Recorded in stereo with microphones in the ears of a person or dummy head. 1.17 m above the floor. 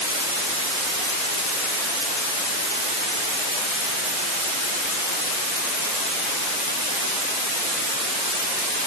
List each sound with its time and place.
Only background noise.